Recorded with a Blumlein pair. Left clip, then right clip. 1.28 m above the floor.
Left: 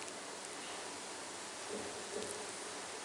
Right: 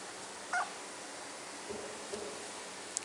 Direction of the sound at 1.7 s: 30° right.